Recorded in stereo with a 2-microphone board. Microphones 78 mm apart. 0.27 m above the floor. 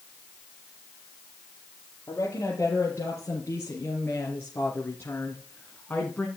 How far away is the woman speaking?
About 5.5 m.